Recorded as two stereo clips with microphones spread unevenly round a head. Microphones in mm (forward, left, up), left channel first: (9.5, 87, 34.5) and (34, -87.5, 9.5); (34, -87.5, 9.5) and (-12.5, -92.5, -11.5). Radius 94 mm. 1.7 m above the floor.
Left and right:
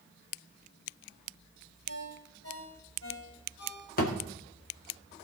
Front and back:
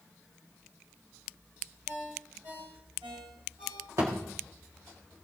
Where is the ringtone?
130° left, 5.5 m.